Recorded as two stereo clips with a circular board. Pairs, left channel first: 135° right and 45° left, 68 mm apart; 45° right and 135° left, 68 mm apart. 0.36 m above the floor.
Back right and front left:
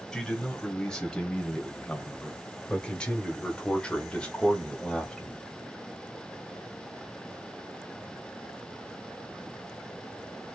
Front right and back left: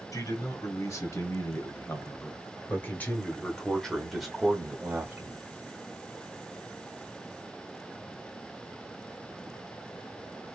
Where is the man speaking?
55° right, 2.5 m; by 5.4 s 155° left, 1.4 m.